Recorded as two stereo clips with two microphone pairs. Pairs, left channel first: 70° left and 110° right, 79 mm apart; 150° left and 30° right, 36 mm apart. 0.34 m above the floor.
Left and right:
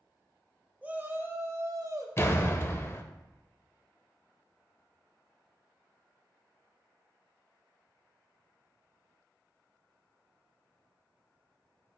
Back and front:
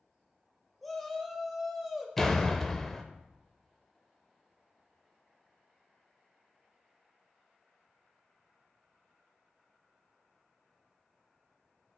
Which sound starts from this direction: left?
A door slam, at 2.2 s.